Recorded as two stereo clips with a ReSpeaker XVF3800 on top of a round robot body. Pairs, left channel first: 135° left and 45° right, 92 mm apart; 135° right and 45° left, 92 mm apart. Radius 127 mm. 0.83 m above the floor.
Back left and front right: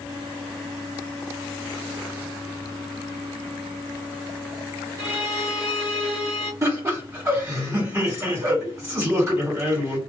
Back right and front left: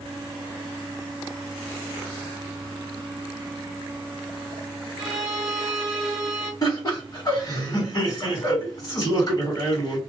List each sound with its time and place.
5.0 s a violin: 100° right, 0.9 m
6.6 s laughter: 95° right, 1.5 m